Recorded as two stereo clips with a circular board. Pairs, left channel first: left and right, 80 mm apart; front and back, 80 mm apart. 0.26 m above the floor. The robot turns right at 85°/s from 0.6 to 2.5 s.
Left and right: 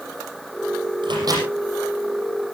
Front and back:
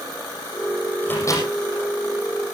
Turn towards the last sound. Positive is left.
turn(degrees=50)